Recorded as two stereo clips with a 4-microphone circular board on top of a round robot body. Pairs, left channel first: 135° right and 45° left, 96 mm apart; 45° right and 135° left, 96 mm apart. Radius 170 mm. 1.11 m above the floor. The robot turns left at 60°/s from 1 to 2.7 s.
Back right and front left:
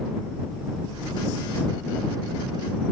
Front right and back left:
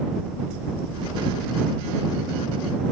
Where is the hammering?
No hammering in this recording.